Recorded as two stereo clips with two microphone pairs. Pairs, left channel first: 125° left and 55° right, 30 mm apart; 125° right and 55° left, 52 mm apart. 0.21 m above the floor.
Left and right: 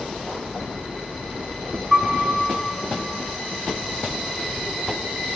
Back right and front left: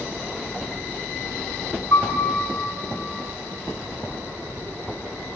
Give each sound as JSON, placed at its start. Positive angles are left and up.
{"t": 1.9, "sound": "a piano", "azimuth_deg": -125, "distance_m": 6.5}